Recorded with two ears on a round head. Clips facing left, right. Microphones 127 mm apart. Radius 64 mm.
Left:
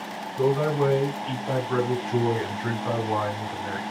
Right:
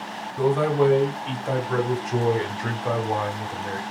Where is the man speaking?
65° right (ahead or behind), 3 m; by 3.8 s 20° right (ahead or behind), 1.6 m.